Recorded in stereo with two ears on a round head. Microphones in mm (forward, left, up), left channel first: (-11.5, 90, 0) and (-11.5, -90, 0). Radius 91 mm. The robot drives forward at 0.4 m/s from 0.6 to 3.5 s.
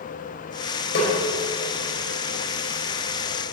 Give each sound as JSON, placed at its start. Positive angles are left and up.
{"t": 0.9, "sound": "a snare drum", "side_deg": 60, "distance_m": 4.5}